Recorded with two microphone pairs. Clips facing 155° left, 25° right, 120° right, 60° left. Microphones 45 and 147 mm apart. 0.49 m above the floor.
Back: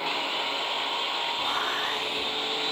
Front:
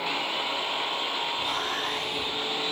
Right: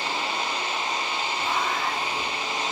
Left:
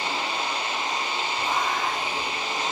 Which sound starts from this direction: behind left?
Whispering, at 1.4 s.